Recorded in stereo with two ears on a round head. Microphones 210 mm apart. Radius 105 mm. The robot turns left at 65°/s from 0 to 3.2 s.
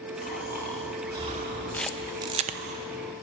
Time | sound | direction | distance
0.2 | snoring | 40° left | 2 m
1.7 | a camera shutter | 10° left (ahead or behind) | 0.7 m